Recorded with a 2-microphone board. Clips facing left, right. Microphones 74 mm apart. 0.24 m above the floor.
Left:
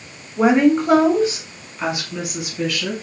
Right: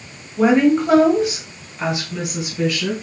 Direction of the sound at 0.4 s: 15° left (ahead or behind).